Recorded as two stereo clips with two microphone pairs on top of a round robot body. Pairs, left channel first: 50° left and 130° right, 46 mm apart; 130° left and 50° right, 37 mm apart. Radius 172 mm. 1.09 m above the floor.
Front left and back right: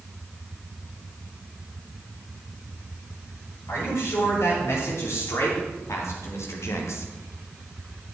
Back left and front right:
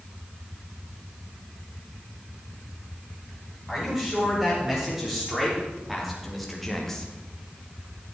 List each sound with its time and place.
3.7 s a man speaking: 30° left, 6.5 m; by 7.1 s 55° left, 1.9 m